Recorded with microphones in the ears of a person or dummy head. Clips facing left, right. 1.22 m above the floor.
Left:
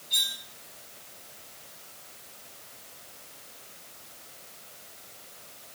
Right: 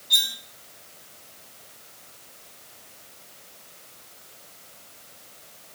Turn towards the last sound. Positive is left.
turn(degrees=-75)  # may be behind; listen again after turning